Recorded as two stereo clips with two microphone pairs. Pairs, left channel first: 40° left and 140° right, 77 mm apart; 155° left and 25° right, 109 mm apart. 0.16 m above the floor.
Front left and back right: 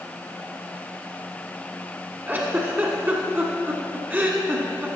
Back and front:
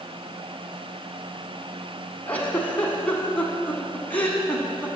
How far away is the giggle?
About 1.3 m.